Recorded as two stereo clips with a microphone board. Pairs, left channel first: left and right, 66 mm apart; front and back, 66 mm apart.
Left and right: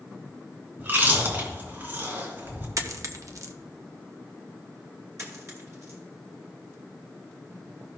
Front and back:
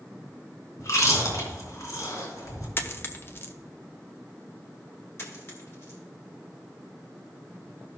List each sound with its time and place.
0.8 s chewing: 35° right, 3.5 m
2.8 s a dropped coin: 55° right, 0.8 m
5.2 s a dropped coin: 50° right, 2.5 m